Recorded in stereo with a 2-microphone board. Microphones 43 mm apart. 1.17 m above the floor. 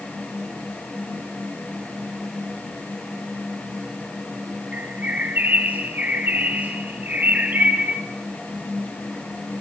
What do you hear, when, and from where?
4.7 s a bird: 40° right (ahead or behind), 2 m